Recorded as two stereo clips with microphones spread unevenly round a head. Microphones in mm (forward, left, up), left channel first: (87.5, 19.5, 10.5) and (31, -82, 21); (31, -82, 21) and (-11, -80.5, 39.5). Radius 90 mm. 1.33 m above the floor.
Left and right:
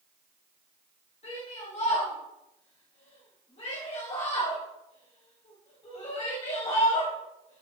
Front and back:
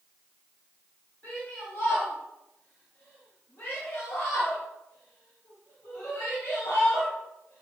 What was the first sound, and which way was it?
A shout, 40° left.